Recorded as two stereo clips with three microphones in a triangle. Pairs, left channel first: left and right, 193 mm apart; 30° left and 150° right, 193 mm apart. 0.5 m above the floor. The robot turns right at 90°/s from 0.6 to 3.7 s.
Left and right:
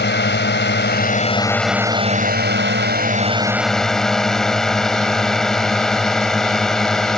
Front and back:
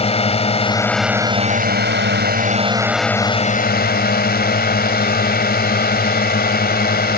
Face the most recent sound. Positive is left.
turn(degrees=5)